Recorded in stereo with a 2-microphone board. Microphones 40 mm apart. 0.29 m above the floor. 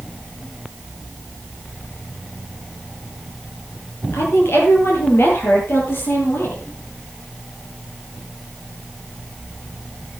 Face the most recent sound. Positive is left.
turn(degrees=55)  # may be behind; listen again after turning